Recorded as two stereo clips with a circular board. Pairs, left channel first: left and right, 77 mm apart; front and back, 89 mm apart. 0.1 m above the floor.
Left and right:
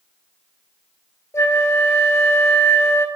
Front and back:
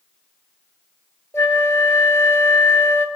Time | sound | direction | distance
1.3 | a flute | 50° left | 0.8 m